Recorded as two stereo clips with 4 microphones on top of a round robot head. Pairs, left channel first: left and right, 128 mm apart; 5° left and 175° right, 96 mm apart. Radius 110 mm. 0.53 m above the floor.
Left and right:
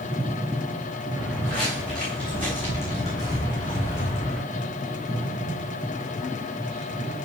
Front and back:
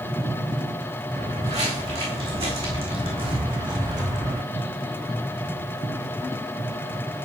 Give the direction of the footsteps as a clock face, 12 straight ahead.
6 o'clock.